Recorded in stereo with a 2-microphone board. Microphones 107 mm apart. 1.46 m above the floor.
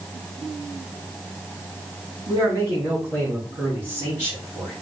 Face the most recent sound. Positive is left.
turn(degrees=-20)  # may be behind; listen again after turning